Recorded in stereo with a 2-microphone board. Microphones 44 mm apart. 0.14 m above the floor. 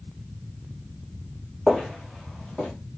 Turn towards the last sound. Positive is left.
turn(degrees=10)  # may be behind; listen again after turning